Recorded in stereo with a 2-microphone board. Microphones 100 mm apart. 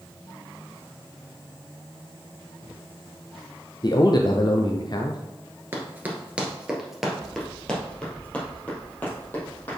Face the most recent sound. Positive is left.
turn(degrees=20)  # may be behind; listen again after turning